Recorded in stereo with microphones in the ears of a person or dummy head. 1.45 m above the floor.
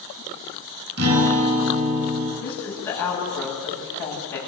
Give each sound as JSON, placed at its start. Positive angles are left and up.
{"t": 1.0, "sound": "a guitar", "side_deg": -55, "distance_m": 5.5}
{"t": 2.4, "sound": "a woman speaking", "side_deg": 10, "distance_m": 9.0}